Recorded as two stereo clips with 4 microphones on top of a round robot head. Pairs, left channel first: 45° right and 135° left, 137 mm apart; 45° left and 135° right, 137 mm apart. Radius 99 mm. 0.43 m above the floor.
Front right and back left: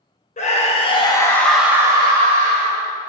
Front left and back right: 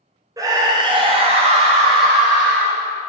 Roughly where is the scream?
Right.